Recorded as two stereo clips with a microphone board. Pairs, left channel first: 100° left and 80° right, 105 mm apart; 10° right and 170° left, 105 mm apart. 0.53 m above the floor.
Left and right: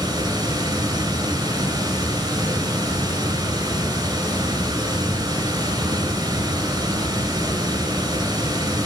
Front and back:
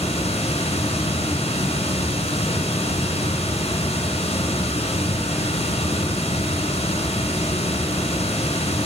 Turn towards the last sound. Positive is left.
turn(degrees=-25)